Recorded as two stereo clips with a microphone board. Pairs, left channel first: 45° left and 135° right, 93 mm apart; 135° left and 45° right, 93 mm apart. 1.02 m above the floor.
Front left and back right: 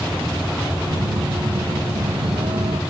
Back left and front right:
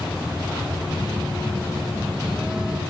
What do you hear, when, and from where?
0.9 s a phone buzzing: 125° right